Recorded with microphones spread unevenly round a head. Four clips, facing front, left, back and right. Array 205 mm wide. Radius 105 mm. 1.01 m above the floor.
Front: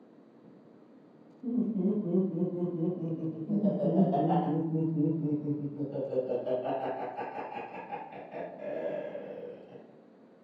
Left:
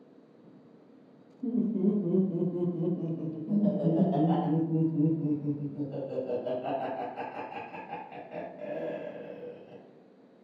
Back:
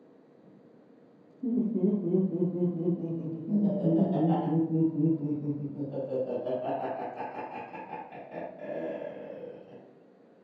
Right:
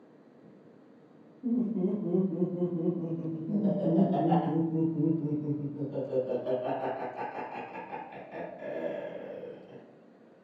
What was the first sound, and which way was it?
Laughter, 130° left.